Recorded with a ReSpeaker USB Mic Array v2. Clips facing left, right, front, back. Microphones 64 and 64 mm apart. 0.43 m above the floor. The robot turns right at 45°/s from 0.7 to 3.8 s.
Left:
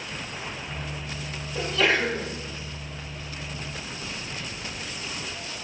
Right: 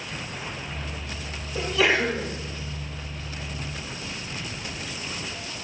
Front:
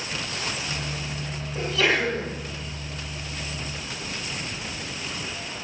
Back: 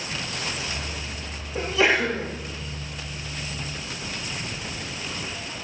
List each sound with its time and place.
1.6 s a sneeze: 155° right, 0.8 m; by 2.3 s 125° right, 0.8 m